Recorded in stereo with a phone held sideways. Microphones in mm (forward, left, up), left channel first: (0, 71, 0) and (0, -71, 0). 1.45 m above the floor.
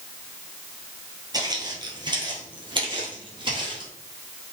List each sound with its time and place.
1.3 s footsteps: 30° right (ahead or behind), 1.6 m; by 3.9 s 35° right (ahead or behind), 2.5 m